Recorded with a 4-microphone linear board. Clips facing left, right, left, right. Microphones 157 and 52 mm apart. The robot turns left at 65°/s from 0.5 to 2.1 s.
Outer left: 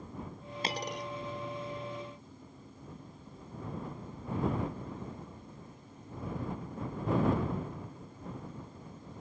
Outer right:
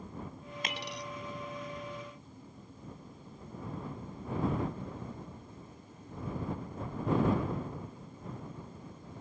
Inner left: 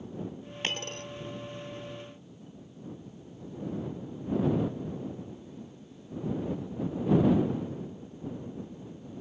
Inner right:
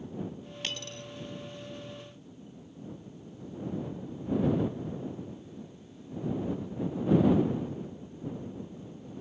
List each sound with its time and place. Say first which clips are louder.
0.6 s a dropped coin: outer left 5 dB, inner left 5 dB; 30° left (ahead or behind); by 1.1 s 60° left (ahead or behind)